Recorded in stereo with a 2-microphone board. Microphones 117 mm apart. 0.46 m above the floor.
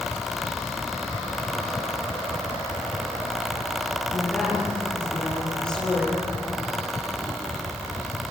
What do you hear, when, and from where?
4.1 s a woman speaking: 5° left (ahead or behind), 10 m